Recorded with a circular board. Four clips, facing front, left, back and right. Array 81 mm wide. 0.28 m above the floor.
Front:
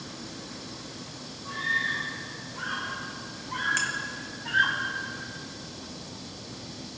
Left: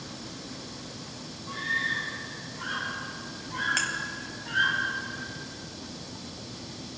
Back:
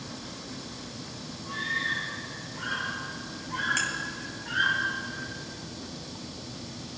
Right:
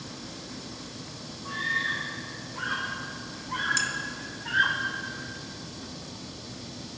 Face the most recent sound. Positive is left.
turn(degrees=100)